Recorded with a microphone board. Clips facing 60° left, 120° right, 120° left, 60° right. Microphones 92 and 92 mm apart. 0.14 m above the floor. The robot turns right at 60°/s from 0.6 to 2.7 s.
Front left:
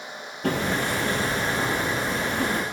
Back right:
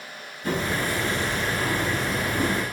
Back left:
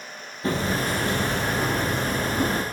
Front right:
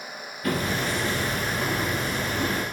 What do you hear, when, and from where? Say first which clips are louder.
0.4 s hammering: front left 1 dB, back left 2 dB; 60° left, 2.5 m; by 2.6 s straight behind, 2.5 m